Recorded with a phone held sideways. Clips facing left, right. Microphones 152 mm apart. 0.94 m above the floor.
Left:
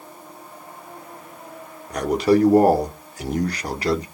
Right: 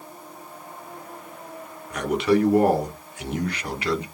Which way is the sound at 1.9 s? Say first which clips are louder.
Left 3 dB; 35° left (ahead or behind).